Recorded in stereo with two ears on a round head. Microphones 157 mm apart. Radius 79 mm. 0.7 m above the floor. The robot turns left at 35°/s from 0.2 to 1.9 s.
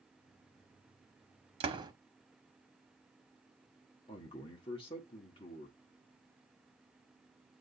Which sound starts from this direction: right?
A door slam, at 1.6 s.